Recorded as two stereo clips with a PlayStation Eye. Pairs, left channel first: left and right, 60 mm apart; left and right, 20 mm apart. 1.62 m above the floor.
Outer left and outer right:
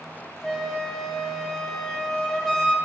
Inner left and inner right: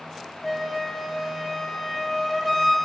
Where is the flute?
5° left (ahead or behind), 0.7 m.